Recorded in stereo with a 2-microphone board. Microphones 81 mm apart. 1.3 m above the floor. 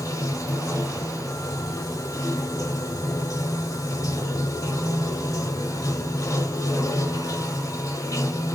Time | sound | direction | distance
0.0 | running water | 45° left (ahead or behind) | 1.9 m